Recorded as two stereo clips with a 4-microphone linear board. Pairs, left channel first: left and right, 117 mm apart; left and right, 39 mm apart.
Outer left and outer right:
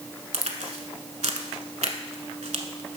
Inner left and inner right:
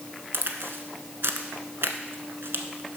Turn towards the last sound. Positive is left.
turn(degrees=-75)  # may be behind; listen again after turning